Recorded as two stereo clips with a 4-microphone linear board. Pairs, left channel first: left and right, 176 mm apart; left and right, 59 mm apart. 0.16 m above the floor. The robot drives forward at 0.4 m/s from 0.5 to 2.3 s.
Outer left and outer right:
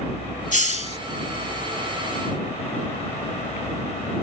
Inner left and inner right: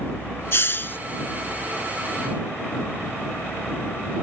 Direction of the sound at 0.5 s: 50° left (ahead or behind).